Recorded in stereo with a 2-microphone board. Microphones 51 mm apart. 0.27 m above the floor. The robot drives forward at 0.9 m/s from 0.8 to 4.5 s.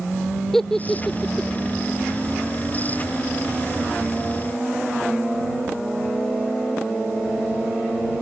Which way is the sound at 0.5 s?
5° left (ahead or behind).